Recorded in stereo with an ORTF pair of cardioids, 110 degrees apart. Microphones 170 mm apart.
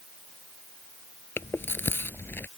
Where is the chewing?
15° left.